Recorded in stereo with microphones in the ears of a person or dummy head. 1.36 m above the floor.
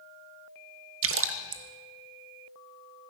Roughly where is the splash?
Right.